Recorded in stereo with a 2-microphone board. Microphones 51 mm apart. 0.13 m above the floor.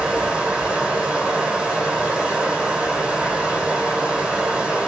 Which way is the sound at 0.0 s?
20° right (ahead or behind).